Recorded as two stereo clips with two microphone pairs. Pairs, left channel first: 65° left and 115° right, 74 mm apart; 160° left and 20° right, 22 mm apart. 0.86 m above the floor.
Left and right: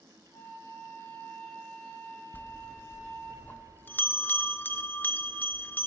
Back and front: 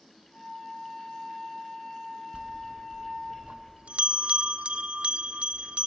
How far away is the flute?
About 6.5 m.